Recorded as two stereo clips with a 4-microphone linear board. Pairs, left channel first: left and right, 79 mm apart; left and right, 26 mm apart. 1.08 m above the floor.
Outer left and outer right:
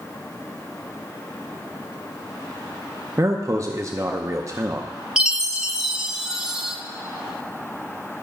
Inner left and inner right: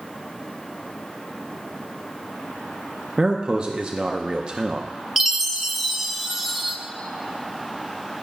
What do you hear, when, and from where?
3.2 s a man speaking: 40° right (ahead or behind), 0.6 m
5.2 s a chime: 5° right (ahead or behind), 0.6 m